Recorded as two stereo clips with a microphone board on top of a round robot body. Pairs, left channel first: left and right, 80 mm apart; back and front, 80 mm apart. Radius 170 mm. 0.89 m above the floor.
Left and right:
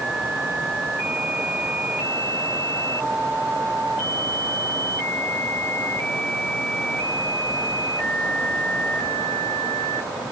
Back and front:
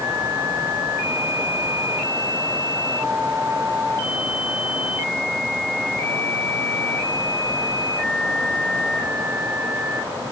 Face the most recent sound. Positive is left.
No sound to turn to.